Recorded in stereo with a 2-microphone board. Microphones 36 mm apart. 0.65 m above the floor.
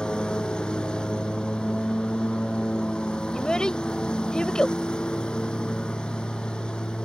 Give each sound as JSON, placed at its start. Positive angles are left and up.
{"t": 0.0, "sound": "a lawn mower", "side_deg": 25}
{"t": 3.3, "sound": "a child speaking", "side_deg": 20}